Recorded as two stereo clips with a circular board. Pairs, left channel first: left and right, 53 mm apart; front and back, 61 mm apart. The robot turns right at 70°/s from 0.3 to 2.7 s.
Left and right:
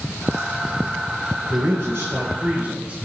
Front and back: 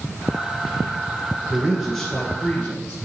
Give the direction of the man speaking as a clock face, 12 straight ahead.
4 o'clock.